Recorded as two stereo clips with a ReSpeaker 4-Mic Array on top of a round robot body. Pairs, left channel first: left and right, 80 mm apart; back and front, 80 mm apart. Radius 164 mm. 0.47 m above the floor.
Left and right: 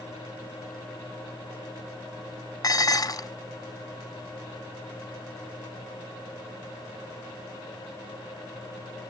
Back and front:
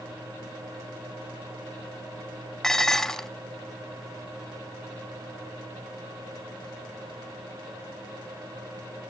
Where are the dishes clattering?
95° left, 0.7 m.